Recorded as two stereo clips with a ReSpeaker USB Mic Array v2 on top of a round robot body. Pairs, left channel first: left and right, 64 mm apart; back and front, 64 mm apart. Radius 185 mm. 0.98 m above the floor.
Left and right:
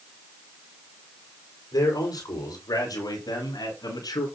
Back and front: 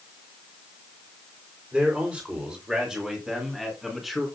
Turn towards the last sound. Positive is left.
turn(degrees=90)